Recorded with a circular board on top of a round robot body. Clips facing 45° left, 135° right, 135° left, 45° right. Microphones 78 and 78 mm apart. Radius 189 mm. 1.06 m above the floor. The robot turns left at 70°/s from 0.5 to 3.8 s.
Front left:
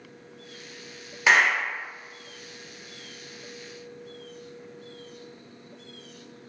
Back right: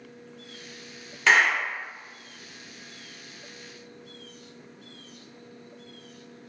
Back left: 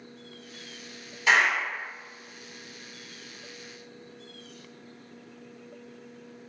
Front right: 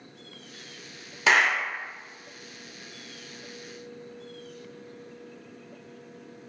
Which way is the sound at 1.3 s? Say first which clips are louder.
Even, front right 1 dB; 35° right.